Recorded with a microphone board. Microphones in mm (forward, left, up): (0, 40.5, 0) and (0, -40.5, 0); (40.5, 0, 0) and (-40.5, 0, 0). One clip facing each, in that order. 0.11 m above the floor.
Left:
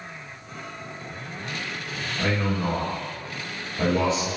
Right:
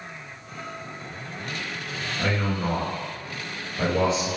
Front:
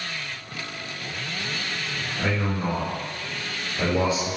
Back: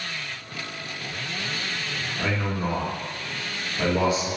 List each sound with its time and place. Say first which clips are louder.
2.2 s a man speaking: left 1 dB, front 1 dB; 50° left, 2.0 m; by 4.3 s 20° right, 1.7 m